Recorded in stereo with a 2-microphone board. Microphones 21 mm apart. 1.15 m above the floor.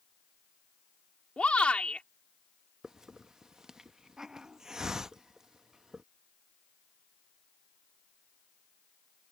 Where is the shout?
75° left (ahead or behind).